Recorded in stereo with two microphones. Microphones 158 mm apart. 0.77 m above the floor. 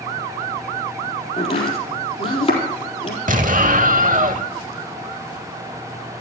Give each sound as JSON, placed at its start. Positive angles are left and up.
{"t": 1.4, "sound": "chopping", "side_deg": 40, "distance_m": 4.0}
{"t": 3.3, "sound": "an explosion", "side_deg": -55, "distance_m": 0.8}